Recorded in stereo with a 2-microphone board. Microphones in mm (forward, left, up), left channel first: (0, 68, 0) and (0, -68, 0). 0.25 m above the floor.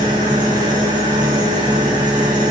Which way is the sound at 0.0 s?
70° right (ahead or behind).